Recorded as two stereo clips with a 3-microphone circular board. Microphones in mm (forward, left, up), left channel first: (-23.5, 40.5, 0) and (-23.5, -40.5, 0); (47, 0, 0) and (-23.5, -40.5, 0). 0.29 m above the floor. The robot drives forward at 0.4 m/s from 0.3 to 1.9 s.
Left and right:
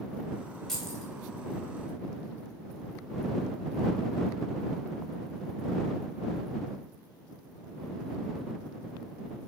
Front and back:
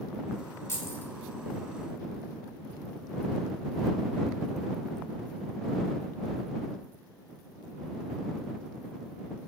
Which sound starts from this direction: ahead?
Keys jangling, at 0.7 s.